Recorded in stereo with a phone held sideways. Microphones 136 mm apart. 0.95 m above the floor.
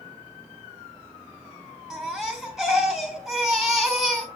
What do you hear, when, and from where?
1.9 s a baby crying: 5° right (ahead or behind), 3 m